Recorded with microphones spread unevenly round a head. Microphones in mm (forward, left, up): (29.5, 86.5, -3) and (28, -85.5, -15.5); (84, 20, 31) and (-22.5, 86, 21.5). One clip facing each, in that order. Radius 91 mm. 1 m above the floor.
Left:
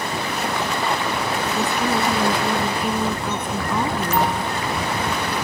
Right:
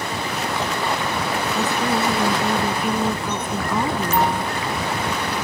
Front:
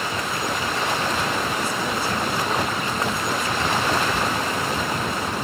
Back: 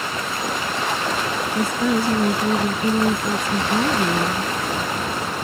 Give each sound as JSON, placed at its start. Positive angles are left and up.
{"t": 1.6, "sound": "a woman speaking", "azimuth_deg": 180}